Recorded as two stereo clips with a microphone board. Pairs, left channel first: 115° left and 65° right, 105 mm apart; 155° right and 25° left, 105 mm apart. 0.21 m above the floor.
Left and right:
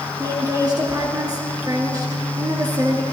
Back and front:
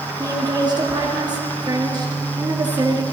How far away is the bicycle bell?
No bicycle bell in this recording.